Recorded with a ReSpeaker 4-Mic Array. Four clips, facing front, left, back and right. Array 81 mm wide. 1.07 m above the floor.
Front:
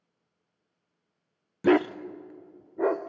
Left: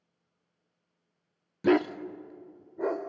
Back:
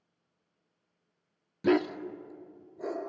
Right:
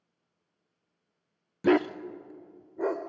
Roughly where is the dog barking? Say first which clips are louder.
Even, front 4 dB; ahead.